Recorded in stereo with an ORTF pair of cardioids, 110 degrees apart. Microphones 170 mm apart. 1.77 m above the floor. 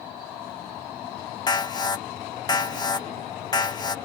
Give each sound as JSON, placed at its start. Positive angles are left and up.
{"t": 1.5, "sound": "an alarm", "azimuth_deg": 25}